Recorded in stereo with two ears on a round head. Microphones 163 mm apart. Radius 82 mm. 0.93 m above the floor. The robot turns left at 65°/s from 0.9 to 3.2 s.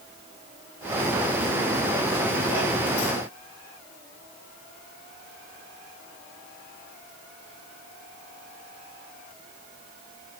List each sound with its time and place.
Only background noise.